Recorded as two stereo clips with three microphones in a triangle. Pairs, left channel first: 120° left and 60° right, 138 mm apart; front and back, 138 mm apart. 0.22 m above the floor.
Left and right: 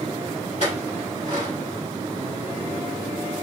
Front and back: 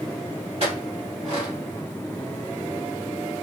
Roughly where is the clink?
Behind left.